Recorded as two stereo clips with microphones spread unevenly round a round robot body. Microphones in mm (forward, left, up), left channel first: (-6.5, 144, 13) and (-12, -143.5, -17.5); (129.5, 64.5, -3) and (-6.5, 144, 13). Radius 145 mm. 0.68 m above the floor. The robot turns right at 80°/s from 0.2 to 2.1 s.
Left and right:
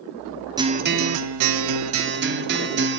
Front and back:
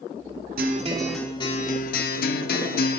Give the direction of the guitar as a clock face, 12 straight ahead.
6 o'clock.